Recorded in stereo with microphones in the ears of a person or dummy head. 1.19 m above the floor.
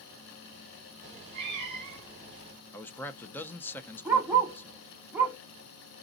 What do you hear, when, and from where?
1.0 s a cat meowing: 40° right (ahead or behind), 1.8 m
2.7 s a man speaking: 5° left (ahead or behind), 0.6 m
4.0 s a dog barking: 15° right (ahead or behind), 1.1 m